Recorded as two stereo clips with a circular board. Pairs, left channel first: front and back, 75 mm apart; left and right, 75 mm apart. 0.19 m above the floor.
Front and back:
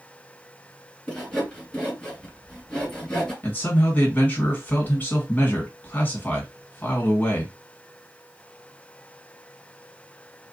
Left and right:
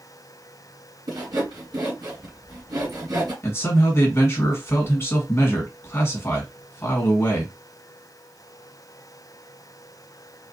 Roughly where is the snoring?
I don't hear snoring.